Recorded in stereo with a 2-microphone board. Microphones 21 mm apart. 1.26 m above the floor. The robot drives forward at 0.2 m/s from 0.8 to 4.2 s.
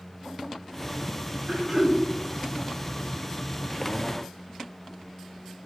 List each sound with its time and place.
1.5 s throat clearing: 15° right (ahead or behind), 0.6 m; by 2.0 s 10° right (ahead or behind), 0.7 m